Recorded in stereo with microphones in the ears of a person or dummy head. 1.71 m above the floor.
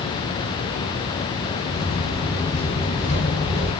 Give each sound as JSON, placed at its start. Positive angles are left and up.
{"t": 1.7, "sound": "footsteps", "side_deg": 5, "distance_m": 2.0}